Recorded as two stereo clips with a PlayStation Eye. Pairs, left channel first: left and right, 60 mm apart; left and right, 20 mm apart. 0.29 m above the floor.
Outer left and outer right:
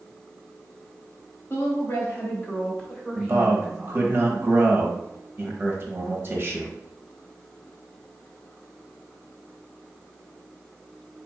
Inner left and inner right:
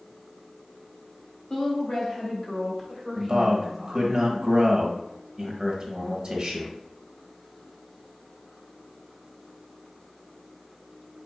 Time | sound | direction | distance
1.5 | a woman speaking | 40° left (ahead or behind) | 1.8 m
3.2 | a man speaking | 35° right (ahead or behind) | 1.3 m